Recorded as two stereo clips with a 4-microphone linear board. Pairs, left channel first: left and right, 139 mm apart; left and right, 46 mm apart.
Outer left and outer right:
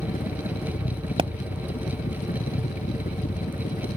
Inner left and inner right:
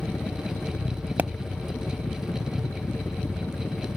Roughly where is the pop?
Right.